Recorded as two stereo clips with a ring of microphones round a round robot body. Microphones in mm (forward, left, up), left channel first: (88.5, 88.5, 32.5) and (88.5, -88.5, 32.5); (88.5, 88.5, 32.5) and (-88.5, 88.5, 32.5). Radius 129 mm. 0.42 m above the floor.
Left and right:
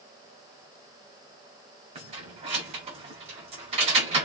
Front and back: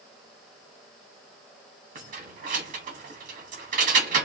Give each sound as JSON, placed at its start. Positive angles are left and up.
{"t": 1.9, "sound": "keys jangling", "azimuth_deg": -140, "distance_m": 0.8}